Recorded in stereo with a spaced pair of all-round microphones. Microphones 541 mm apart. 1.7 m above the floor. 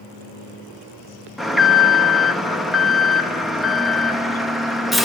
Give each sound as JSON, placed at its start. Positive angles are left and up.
{"t": 1.4, "sound": "an alarm", "side_deg": 0, "distance_m": 1.4}